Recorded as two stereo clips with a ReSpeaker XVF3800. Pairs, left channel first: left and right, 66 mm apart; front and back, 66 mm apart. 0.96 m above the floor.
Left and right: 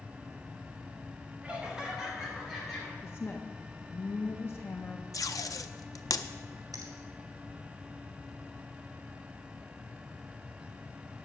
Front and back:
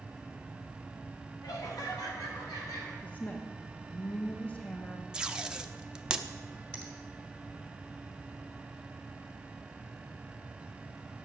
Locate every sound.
1.4 s laughter: 20° right, 1.7 m; by 2.9 s 5° left, 3 m
3.0 s a woman speaking: 55° left, 1.0 m
5.1 s tape being pulled: 105° left, 0.5 m
6.7 s a finger snap: 75° right, 1.9 m